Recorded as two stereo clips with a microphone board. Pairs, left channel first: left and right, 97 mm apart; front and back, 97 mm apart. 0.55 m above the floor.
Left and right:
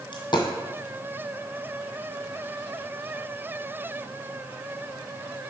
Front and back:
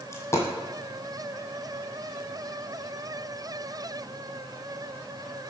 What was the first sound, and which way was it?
A dropped coin, 55° left.